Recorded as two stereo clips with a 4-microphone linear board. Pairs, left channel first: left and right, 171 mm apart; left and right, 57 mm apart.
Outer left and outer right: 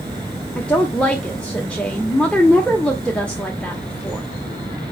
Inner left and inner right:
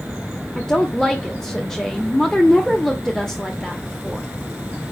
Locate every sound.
0.6 s a woman speaking: 5° left (ahead or behind), 1.0 m